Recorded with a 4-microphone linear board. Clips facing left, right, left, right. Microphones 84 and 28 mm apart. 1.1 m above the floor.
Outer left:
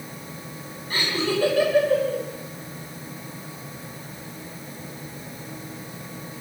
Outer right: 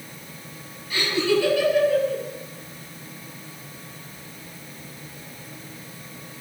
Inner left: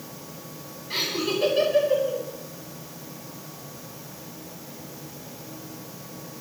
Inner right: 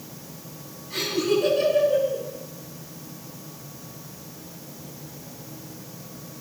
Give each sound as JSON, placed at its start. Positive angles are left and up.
{"t": 0.9, "sound": "laughter", "side_deg": 45, "distance_m": 9.0}